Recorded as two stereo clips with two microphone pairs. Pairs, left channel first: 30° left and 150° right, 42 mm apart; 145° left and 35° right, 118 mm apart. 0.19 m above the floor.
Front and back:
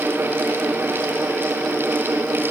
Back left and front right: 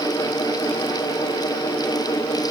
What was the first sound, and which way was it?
Only background noise.